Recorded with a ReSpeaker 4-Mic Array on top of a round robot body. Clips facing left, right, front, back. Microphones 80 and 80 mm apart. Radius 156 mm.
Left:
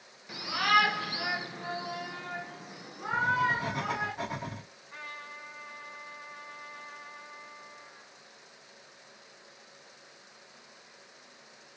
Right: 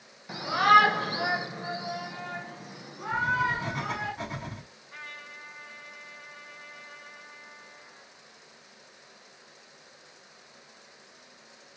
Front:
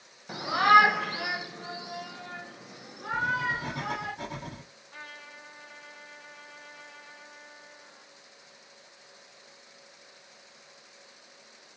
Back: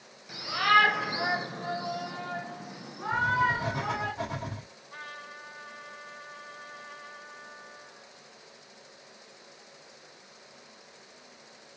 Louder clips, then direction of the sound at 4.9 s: Left 1 dB, back 3 dB; 165° left.